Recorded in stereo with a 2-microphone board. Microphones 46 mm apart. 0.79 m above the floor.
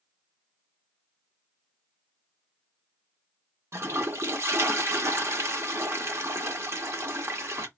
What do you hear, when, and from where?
3.7 s a toilet flushing: 70° right (ahead or behind), 1.2 m